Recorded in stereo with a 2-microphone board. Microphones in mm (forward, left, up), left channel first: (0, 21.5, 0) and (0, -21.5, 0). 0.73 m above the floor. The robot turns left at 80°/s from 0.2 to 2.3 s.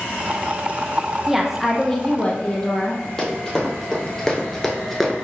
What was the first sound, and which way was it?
A woman speaking, 15° right (ahead or behind).